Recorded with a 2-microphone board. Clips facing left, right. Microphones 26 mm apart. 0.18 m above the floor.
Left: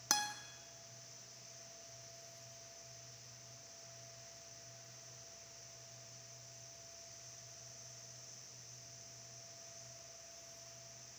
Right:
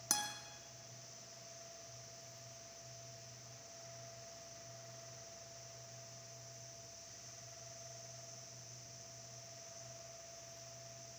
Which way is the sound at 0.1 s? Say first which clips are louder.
Left 3 dB; 25° left (ahead or behind).